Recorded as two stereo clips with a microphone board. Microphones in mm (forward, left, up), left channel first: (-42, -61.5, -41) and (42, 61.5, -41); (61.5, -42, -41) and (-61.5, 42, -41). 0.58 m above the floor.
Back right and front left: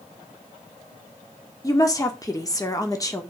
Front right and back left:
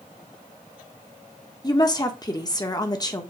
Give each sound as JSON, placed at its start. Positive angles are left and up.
{"t": 1.6, "sound": "a woman speaking", "azimuth_deg": -75, "distance_m": 1.4}